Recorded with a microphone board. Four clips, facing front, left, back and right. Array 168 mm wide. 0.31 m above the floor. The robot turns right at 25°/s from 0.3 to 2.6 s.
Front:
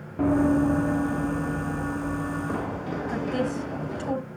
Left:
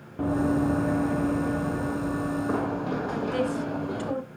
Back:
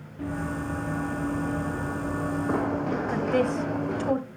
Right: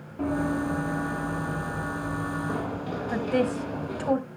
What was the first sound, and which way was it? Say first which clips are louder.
Running footsteps: left 3 dB, front 11 dB; 25° left.